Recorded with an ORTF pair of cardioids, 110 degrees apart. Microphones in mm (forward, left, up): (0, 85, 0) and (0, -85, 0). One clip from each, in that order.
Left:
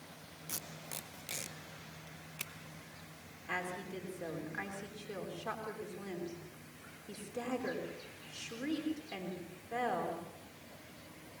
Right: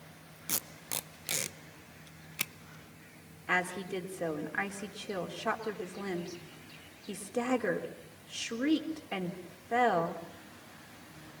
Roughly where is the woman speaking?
Ahead right.